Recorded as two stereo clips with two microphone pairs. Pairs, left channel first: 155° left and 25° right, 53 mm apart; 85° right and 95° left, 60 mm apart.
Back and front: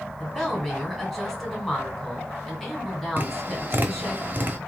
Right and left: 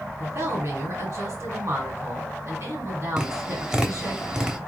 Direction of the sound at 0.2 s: 75° left.